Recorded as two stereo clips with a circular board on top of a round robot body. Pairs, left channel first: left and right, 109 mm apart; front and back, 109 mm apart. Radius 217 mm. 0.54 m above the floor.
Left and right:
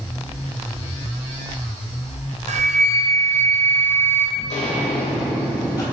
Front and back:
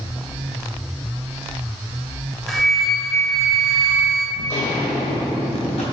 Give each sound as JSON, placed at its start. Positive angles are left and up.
{"t": 2.5, "sound": "a flute", "azimuth_deg": -90, "distance_m": 0.7}
{"t": 4.4, "sound": "footsteps", "azimuth_deg": 75, "distance_m": 1.3}